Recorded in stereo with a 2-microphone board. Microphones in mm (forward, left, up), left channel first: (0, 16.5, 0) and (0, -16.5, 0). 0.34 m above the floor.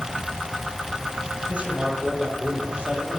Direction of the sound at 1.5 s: 40° right (ahead or behind).